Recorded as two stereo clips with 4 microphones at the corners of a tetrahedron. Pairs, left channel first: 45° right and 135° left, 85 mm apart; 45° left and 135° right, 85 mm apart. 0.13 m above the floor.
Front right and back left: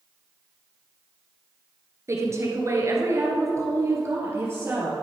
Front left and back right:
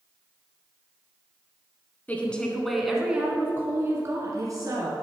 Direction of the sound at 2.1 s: 105° left.